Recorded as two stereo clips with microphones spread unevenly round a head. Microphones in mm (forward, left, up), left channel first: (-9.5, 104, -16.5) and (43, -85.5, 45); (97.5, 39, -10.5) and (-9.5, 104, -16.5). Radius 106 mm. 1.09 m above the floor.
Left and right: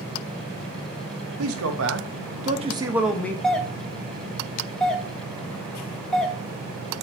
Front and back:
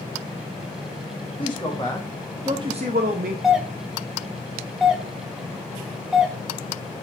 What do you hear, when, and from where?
1.4 s a man speaking: 100° right, 1.5 m; by 3.3 s straight behind, 1.1 m
3.4 s a doorbell: 70° left, 1.0 m